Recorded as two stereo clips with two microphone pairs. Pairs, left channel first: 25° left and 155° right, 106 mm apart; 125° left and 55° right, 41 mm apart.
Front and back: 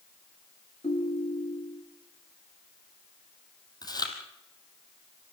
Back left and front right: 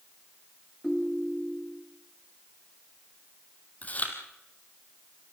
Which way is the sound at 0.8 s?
40° left.